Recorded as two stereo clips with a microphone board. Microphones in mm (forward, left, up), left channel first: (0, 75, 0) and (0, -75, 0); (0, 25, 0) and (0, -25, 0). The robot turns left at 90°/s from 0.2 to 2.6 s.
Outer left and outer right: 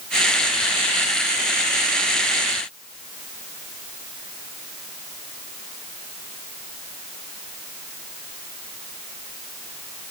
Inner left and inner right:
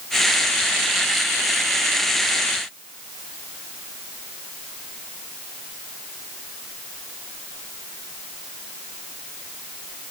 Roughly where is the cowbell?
No cowbell in this recording.